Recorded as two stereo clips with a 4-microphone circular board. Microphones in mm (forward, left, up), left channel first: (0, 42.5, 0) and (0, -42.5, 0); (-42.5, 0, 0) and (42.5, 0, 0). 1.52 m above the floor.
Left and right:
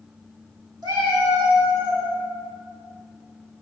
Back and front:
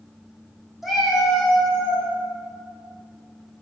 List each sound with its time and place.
0.8 s a cat meowing: 85° right, 1.4 m; by 2.1 s 105° right, 2.5 m